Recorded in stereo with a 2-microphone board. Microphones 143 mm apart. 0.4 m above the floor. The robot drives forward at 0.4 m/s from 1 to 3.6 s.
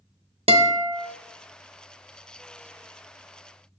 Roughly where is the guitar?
Right.